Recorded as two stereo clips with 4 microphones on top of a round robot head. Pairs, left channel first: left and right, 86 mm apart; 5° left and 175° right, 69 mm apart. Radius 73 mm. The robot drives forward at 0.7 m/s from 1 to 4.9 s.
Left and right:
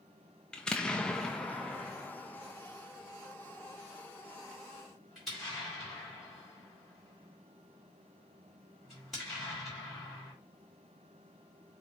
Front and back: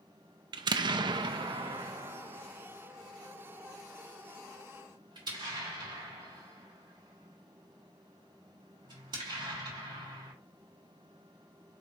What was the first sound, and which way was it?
An explosion, 175° left.